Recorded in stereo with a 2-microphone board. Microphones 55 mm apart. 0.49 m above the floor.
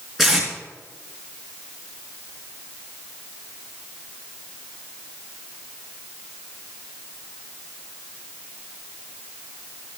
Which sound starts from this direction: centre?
Tape being pulled, at 0.2 s.